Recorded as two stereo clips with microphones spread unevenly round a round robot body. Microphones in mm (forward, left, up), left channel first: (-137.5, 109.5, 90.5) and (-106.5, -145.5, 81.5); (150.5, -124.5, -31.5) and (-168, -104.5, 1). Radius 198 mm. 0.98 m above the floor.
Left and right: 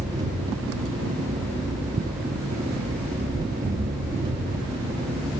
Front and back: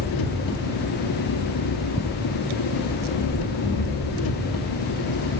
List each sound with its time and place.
0.0 s an engine running: 5° right, 2 m